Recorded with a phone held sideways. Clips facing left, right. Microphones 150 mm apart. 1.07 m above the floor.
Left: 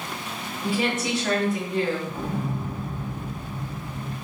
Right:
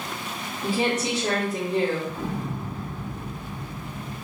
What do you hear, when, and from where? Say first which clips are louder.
0.6 s a woman speaking: right 1 dB; 35° right (ahead or behind), 2.5 m
2.1 s an explosion: left 1 dB; 20° left (ahead or behind), 1.4 m